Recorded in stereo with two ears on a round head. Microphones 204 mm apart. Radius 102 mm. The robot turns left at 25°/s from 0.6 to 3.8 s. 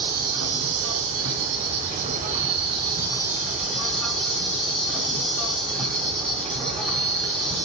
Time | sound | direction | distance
0.0 | an insect | 105° right | 3 m